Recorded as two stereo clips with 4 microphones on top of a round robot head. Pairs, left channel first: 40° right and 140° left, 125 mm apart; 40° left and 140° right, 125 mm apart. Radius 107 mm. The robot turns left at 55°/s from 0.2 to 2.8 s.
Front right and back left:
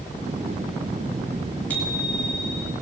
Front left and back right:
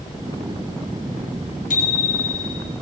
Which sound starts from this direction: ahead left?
A bicycle bell, at 1.7 s.